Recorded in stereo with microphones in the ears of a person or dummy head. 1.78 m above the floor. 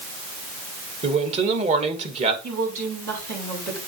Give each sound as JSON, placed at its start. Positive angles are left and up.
{"t": 1.0, "sound": "a man speaking", "side_deg": -30, "distance_m": 2.0}
{"t": 2.4, "sound": "a woman speaking", "side_deg": -60, "distance_m": 5.5}